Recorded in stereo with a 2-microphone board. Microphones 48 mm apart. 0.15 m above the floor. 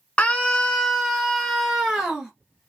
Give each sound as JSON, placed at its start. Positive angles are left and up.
{"t": 0.2, "sound": "a scream", "side_deg": 25, "distance_m": 1.2}